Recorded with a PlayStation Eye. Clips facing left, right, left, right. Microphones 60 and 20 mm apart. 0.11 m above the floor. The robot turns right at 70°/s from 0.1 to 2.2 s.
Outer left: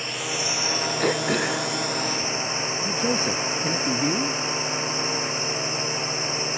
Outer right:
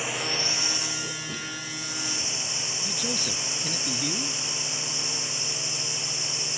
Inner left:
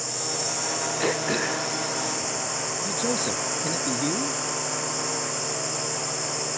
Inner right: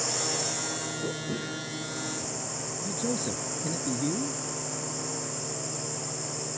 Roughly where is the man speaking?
Left.